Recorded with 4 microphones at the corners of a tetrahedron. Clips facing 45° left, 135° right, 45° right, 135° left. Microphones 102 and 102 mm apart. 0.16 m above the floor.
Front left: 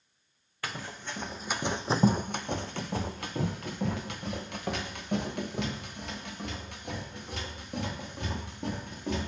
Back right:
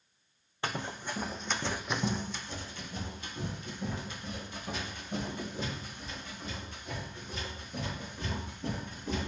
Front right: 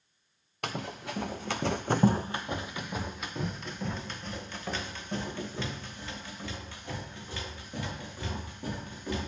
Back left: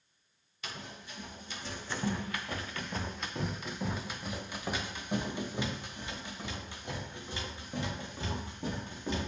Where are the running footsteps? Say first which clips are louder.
Back right 3 dB, front right 9 dB; 70° right, 0.9 m; by 9.3 s 65° left, 4.5 m.